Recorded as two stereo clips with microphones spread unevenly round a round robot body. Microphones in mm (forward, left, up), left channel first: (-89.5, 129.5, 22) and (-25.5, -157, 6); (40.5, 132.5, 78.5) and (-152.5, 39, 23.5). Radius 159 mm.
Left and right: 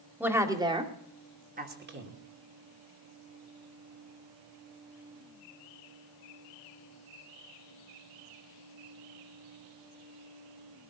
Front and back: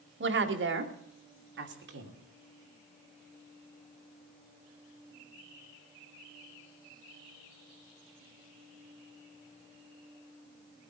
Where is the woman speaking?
160° right, 2 m; by 2.2 s 125° right, 2.5 m.